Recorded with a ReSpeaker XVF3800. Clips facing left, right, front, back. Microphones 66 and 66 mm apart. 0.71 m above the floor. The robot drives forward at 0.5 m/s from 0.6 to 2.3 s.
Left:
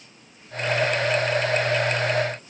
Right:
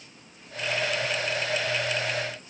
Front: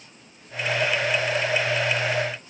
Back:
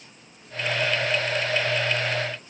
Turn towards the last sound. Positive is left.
No sound to turn to.